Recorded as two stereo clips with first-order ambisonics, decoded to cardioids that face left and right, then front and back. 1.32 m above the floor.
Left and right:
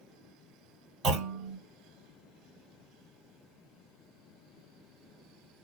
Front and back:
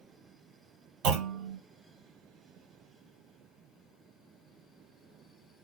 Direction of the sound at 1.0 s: 150° right.